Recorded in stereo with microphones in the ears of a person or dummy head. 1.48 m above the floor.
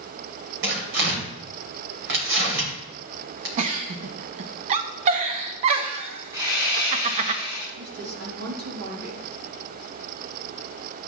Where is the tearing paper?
65° right (ahead or behind), 2.5 m.